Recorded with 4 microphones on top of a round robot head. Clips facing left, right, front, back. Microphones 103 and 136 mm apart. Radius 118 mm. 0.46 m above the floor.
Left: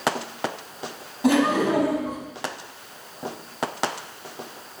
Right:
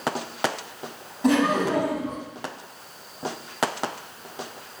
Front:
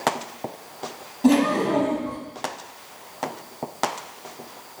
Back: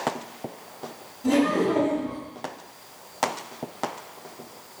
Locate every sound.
1.2 s laughter: 5° left, 4 m